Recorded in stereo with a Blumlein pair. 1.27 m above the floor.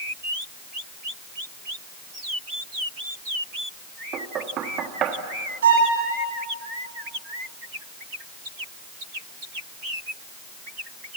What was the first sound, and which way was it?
Knocking, 30° right.